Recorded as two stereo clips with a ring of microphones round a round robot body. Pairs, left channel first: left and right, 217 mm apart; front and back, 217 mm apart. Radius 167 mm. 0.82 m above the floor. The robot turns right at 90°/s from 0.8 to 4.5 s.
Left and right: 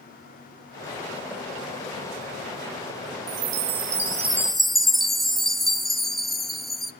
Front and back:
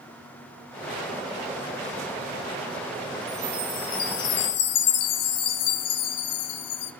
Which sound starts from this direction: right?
A chime, at 3.3 s.